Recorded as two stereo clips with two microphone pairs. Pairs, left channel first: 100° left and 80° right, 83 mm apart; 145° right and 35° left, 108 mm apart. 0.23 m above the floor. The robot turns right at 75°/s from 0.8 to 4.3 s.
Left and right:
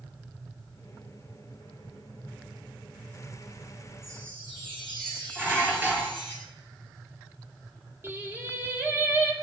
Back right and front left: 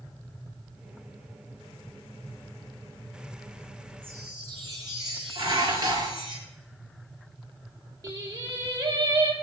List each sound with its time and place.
4.0 s a chime: 35° right, 7.5 m; by 6.3 s 15° right, 7.5 m
5.3 s dishes clattering: 15° right, 2.5 m
8.0 s singing: 20° right, 2.5 m